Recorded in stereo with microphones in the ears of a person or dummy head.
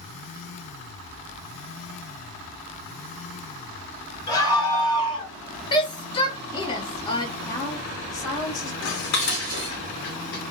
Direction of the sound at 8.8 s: 65° left (ahead or behind).